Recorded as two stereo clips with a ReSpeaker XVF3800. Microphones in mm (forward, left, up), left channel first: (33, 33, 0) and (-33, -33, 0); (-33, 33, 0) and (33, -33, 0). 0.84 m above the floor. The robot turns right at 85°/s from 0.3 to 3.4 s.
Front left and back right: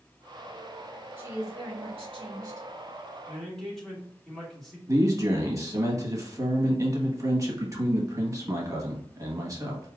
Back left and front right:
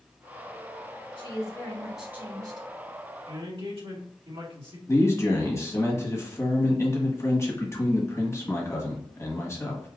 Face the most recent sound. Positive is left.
turn(degrees=-175)